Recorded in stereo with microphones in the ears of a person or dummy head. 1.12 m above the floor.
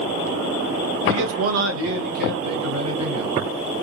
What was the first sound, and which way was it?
A man speaking, 65° right (ahead or behind).